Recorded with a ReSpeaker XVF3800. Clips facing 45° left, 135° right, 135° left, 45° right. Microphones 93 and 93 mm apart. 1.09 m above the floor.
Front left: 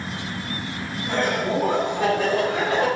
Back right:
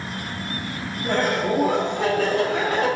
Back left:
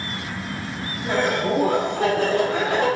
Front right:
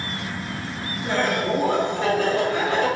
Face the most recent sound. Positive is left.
turn(degrees=100)